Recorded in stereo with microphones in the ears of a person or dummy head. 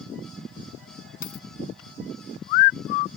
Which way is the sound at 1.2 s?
50° left (ahead or behind).